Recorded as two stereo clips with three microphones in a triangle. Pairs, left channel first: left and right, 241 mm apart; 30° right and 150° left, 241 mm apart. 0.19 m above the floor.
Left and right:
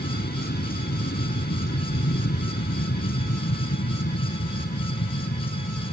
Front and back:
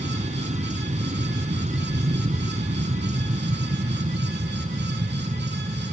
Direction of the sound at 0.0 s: 105° left.